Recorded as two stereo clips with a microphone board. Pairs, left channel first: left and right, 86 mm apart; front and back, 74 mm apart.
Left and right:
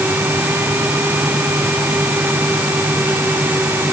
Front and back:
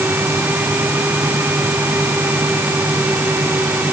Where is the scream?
No scream in this recording.